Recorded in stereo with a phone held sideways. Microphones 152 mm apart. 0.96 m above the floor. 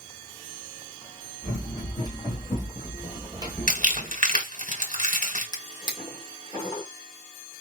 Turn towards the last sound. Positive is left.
turn(degrees=30)  # may be behind; listen again after turning